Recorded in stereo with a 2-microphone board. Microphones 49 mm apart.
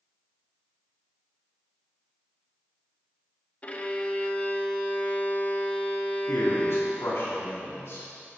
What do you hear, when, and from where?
3.6 s a violin: 25° left (ahead or behind), 0.8 m
6.3 s a man speaking: 60° left (ahead or behind), 3 m